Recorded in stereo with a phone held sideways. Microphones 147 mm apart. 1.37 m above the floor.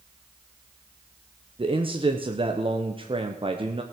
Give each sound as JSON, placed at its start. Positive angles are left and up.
{"t": 1.6, "sound": "a man speaking", "side_deg": -40, "distance_m": 1.0}